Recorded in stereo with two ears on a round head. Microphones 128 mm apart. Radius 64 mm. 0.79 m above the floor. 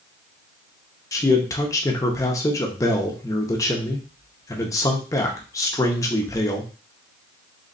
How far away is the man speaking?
About 0.8 m.